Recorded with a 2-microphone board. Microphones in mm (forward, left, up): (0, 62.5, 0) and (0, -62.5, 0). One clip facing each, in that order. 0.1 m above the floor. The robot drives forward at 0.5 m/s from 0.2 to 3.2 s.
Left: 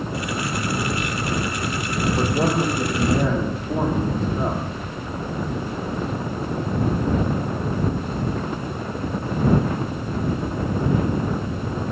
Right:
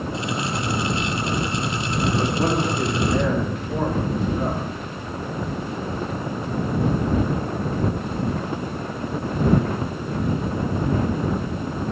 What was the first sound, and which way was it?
A man speaking, 40° left (ahead or behind).